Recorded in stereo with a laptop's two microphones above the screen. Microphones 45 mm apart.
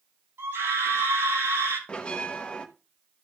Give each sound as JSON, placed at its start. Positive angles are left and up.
{"t": 0.4, "sound": "a scream", "side_deg": -75, "distance_m": 7.0}
{"t": 1.9, "sound": "a bell", "side_deg": 25, "distance_m": 1.0}